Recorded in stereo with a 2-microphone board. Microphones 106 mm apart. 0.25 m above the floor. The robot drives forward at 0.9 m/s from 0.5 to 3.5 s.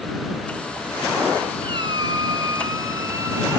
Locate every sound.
1.6 s a squeak: 50° right (ahead or behind), 1.7 m; by 3.6 s 25° right (ahead or behind), 3 m